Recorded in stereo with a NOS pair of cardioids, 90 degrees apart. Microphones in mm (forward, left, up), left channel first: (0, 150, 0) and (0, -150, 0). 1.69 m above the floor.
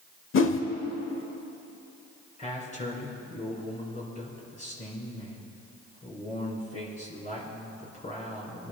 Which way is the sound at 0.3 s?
45° left.